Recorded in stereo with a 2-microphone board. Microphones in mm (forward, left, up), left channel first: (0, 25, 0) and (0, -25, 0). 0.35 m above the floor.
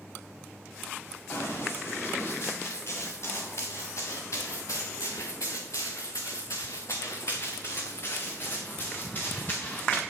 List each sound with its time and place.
1.3 s running footsteps: 45° left (ahead or behind), 3.5 m; by 10.0 s 30° left (ahead or behind), 2.5 m